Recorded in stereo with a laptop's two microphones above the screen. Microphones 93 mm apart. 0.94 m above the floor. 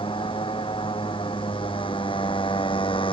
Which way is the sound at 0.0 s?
65° left (ahead or behind).